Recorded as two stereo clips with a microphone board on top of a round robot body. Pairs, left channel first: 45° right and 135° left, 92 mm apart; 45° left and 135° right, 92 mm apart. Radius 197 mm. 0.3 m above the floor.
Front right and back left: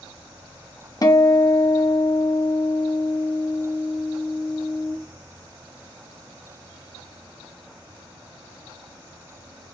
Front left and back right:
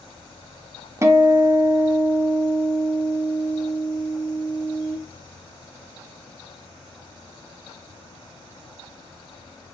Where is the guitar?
85° right, 0.7 m.